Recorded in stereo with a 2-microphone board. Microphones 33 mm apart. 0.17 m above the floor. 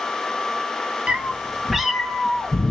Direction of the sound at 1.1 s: 40° right (ahead or behind).